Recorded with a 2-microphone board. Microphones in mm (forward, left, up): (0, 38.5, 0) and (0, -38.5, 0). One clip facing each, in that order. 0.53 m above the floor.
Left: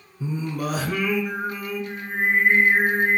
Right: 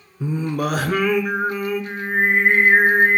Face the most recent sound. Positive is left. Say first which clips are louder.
# right 5 dB
turn(degrees=-60)  # may be behind; listen again after turning